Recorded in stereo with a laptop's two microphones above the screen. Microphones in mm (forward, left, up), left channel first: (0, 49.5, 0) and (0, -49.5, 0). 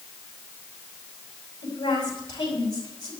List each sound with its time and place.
1.6 s a woman speaking: 45° left (ahead or behind), 6 m